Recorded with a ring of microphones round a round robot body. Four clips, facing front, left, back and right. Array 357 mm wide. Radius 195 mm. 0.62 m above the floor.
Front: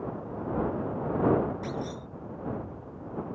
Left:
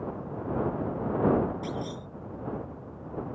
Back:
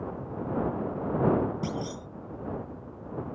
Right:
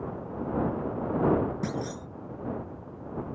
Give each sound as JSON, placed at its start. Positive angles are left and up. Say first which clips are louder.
{"t": 1.6, "sound": "a clunk", "louder": "right 2 dB, back 1 dB", "azimuth_deg": -135}